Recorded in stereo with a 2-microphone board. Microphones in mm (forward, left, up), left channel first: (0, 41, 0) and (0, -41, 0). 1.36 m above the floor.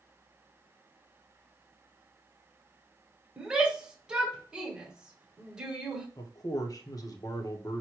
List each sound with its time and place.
3.4 s a shout: 10° right (ahead or behind), 1.1 m
6.2 s a man speaking: 45° left (ahead or behind), 0.8 m